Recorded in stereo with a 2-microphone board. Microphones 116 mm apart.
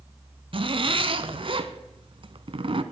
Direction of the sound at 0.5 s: 55° right (ahead or behind).